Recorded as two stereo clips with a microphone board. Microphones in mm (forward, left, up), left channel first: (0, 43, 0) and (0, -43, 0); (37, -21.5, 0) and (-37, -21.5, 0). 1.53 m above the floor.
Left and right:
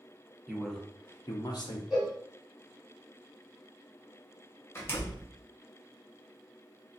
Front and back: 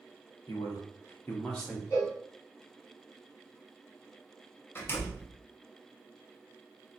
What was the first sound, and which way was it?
A man speaking, 10° right.